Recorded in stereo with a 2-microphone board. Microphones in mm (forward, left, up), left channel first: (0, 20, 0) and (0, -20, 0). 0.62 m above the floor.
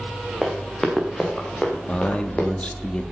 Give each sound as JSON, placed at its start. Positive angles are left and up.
{"t": 0.4, "sound": "running footsteps", "side_deg": 0, "distance_m": 3.5}
{"t": 1.9, "sound": "a man speaking", "side_deg": 25, "distance_m": 0.7}